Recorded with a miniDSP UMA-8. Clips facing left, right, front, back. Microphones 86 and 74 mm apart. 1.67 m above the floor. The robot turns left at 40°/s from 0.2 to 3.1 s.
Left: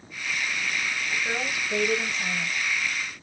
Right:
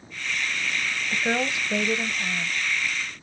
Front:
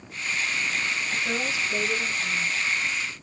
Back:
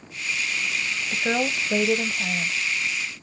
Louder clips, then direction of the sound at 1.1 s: Right 7 dB, back 8 dB; 135° right.